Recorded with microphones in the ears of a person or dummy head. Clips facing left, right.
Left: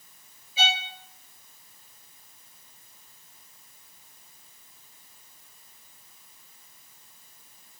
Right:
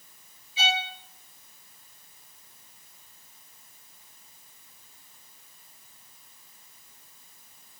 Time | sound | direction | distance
0.6 | a violin | 45° left (ahead or behind) | 1.5 m